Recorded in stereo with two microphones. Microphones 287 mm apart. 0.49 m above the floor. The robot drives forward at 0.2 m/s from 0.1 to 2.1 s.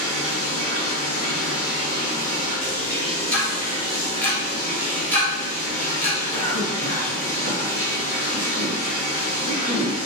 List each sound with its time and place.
0.0 s running water: 35° left (ahead or behind), 1.5 m; by 10.1 s 25° left (ahead or behind), 1.9 m
3.3 s ticking: 5° left (ahead or behind), 1.2 m
6.3 s a cough: 10° left (ahead or behind), 1.4 m